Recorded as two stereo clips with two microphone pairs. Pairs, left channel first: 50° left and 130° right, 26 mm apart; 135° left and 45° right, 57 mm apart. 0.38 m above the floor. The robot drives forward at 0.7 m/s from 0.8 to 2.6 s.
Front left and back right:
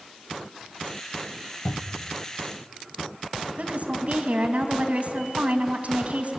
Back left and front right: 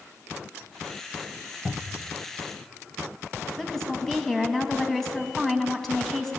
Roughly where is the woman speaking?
Behind right.